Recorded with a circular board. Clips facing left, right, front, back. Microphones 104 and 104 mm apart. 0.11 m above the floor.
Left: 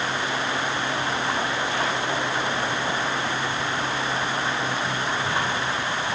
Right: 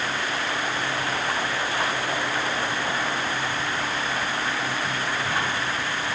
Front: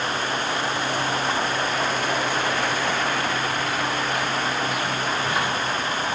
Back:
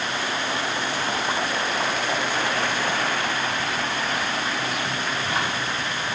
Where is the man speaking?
I don't hear a man speaking.